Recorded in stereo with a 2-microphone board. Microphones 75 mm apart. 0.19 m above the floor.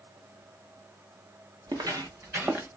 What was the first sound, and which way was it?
Footsteps, 70° right (ahead or behind).